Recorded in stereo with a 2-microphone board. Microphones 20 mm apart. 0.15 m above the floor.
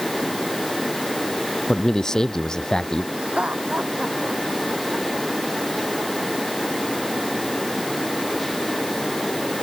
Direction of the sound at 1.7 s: 25° left (ahead or behind).